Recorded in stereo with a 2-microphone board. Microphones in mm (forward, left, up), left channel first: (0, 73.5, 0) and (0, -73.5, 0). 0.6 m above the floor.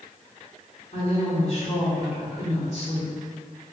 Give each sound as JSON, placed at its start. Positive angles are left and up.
{"t": 0.9, "sound": "a woman speaking", "side_deg": 50, "distance_m": 1.4}